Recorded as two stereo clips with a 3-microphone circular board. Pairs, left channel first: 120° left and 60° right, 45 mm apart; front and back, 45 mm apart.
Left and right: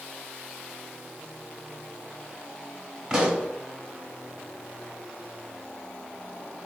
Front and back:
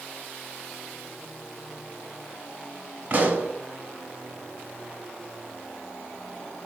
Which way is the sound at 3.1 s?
130° right.